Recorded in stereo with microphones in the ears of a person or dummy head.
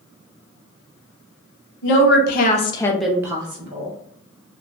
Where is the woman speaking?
70° left (ahead or behind), 0.8 m; by 3.9 s 40° right (ahead or behind), 0.9 m.